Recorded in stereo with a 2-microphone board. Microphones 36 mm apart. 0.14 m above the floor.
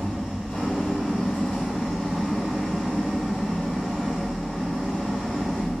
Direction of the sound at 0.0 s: 55° left (ahead or behind).